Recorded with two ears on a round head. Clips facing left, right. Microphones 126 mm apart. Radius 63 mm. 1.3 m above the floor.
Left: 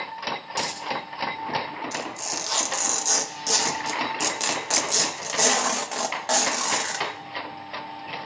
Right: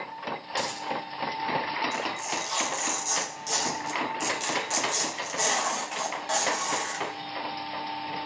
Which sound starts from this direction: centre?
A dropped coin, at 0.5 s.